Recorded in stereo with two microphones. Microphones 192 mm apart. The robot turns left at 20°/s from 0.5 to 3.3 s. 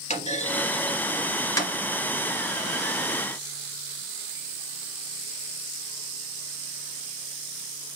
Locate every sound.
0.1 s a clunk: 40° left (ahead or behind), 1.5 m; by 1.8 s 15° left (ahead or behind), 1.5 m